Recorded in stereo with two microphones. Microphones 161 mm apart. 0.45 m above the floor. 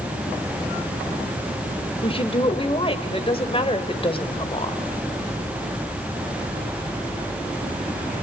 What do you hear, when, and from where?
2.0 s a woman speaking: 35° left (ahead or behind), 1.8 m